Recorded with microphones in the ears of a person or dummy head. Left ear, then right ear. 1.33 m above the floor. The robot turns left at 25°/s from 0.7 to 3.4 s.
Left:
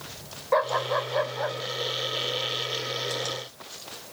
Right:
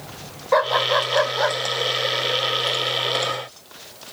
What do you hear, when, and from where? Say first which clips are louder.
0.5 s a dog barking: right 6 dB; 15° right (ahead or behind); by 1.6 s 35° right (ahead or behind)